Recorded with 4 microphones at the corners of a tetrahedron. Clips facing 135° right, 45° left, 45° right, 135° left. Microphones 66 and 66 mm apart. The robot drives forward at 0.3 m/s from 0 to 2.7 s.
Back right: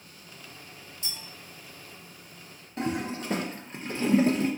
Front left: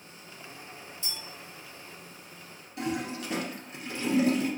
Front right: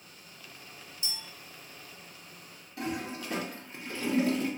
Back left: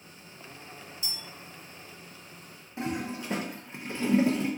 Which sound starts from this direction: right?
A clink, at 1.0 s.